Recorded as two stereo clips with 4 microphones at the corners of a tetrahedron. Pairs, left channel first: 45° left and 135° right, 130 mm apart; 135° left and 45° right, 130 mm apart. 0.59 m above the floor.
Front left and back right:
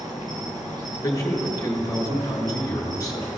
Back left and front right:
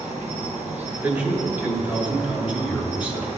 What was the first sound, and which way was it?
An insect, 75° right.